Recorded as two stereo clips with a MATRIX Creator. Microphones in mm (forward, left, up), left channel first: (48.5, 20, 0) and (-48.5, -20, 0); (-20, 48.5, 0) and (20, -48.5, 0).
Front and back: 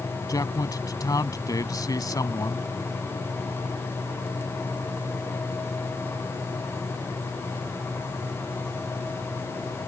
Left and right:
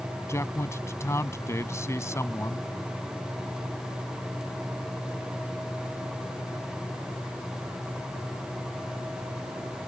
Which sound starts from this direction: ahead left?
A man speaking, at 0.3 s.